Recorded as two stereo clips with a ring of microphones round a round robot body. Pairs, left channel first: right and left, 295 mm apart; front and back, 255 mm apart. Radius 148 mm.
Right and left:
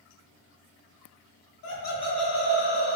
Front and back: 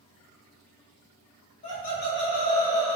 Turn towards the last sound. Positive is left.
turn(degrees=40)